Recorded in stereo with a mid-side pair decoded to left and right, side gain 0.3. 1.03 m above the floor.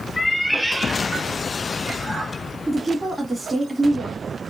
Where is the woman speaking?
20° right, 1.7 m.